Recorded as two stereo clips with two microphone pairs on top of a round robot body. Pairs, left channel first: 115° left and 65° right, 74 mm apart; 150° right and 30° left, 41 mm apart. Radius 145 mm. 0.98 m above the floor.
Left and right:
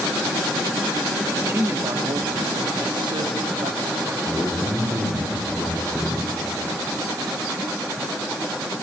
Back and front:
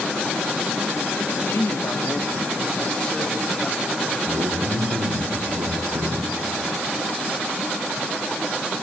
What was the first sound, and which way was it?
A man speaking, 130° right.